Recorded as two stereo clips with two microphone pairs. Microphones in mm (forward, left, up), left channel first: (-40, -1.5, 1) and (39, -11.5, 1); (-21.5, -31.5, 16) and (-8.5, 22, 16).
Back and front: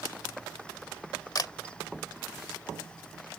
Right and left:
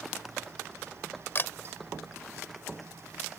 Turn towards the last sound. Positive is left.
turn(degrees=-150)